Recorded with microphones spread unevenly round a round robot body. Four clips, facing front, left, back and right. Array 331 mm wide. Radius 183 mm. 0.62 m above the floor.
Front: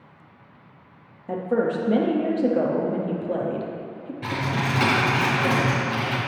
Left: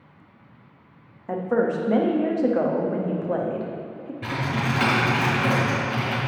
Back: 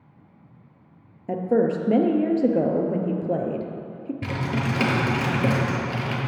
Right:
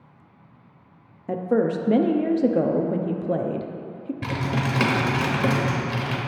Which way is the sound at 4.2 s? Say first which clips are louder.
Left 1 dB, front 2 dB; 135° right.